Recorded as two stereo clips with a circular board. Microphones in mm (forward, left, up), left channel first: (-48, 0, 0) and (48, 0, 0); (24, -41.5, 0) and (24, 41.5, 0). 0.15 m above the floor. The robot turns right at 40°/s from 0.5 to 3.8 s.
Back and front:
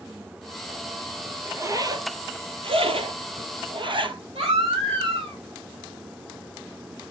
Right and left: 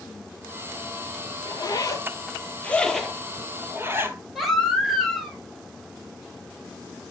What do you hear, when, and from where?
1.4 s a zipper: 65° right, 1.0 m; by 4.2 s 30° left, 1.0 m
4.3 s a baby crying: straight ahead, 2.5 m